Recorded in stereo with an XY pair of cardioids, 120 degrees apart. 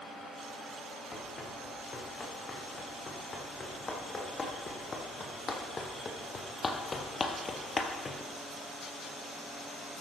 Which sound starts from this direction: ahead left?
Running footsteps, at 1.1 s.